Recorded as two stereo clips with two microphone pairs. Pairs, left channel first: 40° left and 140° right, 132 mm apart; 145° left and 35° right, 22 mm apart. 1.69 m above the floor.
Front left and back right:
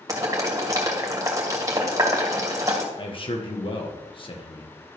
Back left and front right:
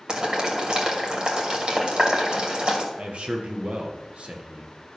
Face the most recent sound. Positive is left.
turn(degrees=-10)